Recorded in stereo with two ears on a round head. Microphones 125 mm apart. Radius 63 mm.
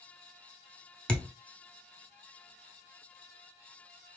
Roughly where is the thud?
Centre.